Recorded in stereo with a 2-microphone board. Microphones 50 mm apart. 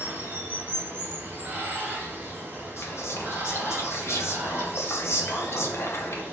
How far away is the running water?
About 2 m.